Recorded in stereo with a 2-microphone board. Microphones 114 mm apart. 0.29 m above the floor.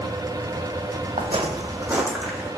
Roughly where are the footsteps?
Right.